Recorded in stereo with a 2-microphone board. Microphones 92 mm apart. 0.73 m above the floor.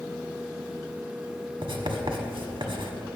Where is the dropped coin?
I don't hear a dropped coin.